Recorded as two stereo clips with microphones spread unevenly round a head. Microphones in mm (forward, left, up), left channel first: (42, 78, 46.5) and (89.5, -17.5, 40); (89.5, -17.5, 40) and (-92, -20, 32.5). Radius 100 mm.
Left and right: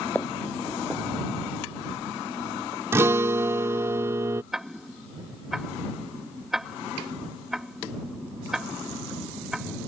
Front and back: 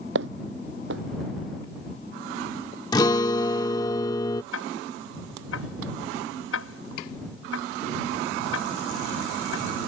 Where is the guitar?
25° right.